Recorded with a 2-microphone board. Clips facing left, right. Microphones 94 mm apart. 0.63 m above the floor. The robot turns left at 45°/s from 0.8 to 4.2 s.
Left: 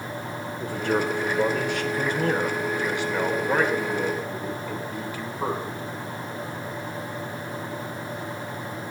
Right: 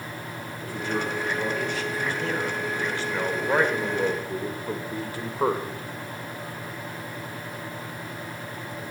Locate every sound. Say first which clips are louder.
0.6 s a man speaking: left 4 dB; 115° left, 2 m; by 5.7 s 40° right, 2 m